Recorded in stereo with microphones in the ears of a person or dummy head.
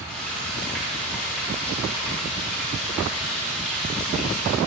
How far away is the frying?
About 2.5 m.